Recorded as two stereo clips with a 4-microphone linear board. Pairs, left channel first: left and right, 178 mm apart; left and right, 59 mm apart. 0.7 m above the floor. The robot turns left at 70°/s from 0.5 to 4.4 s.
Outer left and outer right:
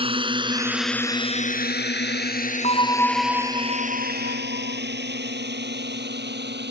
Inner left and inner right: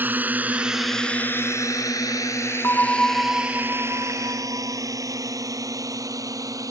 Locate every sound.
0.0 s a drone: 30° right (ahead or behind); by 6.7 s 85° right
2.6 s a bell: 40° left; by 4.8 s 85° right